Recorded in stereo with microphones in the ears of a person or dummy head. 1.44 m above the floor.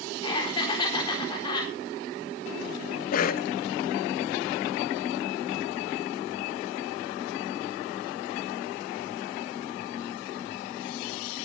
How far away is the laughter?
About 4 m.